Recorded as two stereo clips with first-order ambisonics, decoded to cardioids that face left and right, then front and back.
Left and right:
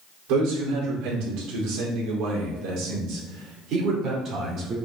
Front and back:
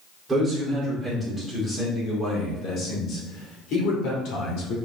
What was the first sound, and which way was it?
A man speaking, 90° right.